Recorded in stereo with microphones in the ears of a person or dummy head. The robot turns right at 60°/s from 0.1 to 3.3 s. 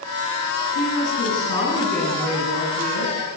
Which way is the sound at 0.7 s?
95° left.